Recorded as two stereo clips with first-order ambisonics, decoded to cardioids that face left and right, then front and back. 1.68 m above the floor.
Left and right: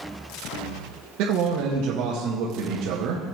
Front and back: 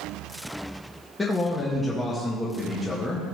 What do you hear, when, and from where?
1.2 s a man speaking: 80° right, 1.6 m